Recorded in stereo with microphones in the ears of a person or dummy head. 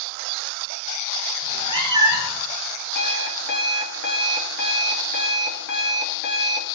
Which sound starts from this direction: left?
An alarm clock, at 3.0 s.